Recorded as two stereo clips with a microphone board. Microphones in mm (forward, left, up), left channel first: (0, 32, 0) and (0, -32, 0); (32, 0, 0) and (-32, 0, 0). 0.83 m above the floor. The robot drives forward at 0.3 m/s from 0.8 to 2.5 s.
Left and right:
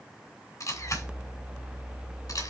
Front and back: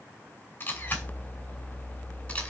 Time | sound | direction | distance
0.6 | a camera shutter | 60° left | 2.5 m